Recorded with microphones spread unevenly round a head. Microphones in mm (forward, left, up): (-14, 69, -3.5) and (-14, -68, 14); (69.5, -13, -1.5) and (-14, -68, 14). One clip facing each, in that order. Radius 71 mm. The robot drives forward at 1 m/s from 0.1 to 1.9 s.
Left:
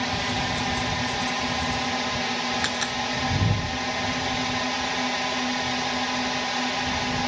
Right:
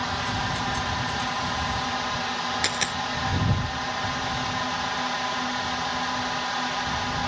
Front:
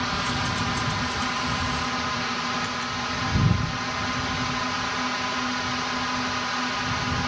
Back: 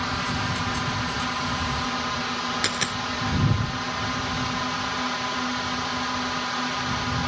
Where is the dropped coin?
165° right.